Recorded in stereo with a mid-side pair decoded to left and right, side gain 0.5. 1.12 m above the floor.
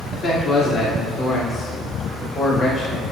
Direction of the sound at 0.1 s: 45° left.